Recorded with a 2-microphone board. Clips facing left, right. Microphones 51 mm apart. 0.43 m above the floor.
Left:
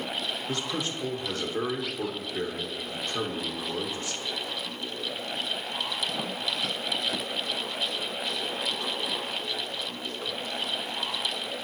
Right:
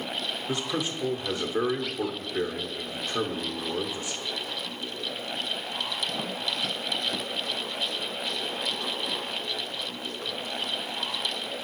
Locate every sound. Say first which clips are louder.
0.5 s a man speaking: right 4 dB; 15° right (ahead or behind), 0.9 m